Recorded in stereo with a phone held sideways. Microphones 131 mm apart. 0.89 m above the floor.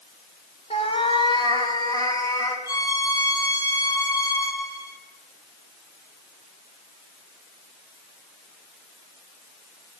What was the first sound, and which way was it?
A cat meowing, 50° left (ahead or behind).